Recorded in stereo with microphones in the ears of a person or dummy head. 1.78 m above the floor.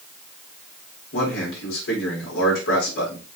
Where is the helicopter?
No helicopter in this recording.